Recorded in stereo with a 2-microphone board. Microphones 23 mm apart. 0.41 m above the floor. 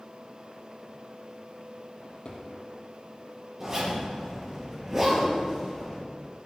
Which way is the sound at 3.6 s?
20° right (ahead or behind).